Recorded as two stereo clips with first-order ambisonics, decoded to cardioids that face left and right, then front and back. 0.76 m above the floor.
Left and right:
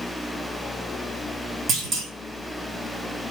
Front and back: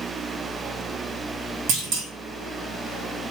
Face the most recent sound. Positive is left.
turn(degrees=-150)